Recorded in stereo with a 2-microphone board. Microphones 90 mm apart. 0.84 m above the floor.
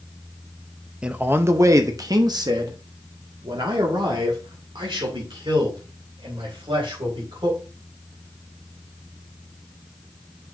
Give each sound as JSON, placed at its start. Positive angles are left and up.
{"t": 1.0, "sound": "a man speaking", "side_deg": -10, "distance_m": 0.6}